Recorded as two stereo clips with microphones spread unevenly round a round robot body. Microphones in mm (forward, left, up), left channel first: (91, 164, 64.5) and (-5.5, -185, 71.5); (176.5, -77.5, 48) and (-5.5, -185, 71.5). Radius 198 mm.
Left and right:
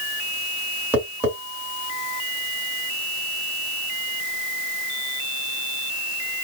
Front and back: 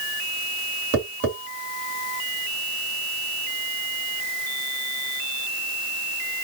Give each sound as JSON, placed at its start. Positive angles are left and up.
{"t": 0.9, "sound": "tapping", "azimuth_deg": 170, "distance_m": 2.0}